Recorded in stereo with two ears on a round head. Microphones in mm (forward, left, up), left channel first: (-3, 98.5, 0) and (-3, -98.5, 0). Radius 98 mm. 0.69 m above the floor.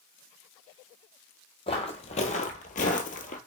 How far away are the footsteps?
About 1.0 m.